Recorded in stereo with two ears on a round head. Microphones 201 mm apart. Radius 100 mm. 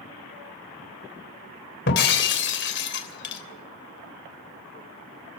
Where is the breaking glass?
55° left (ahead or behind), 3 m.